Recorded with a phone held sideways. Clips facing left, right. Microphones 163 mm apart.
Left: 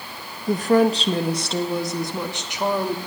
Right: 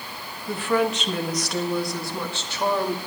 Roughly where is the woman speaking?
Left.